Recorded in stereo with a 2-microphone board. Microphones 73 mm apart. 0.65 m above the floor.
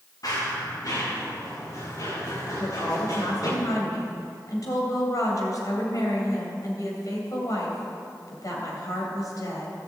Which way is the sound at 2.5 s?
55° left (ahead or behind).